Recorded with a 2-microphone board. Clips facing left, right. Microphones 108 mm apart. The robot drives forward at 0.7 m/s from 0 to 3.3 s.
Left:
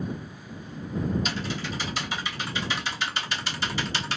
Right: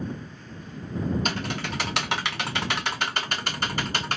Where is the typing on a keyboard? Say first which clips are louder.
Right 2 dB; 50° right (ahead or behind), 1.3 m.